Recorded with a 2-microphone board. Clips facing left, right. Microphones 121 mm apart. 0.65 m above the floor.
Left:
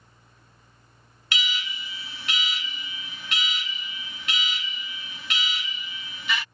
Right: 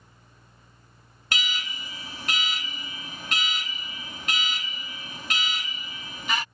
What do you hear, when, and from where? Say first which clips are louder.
1.3 s an alarm: even; 40° right (ahead or behind)